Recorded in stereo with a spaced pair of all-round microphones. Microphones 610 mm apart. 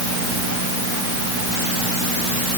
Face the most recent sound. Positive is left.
No sound to turn to.